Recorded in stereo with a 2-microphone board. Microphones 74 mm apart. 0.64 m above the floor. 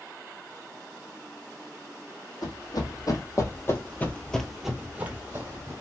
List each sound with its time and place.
2.4 s running footsteps: 60° left (ahead or behind), 1.3 m; by 5.7 s 35° right (ahead or behind), 1.0 m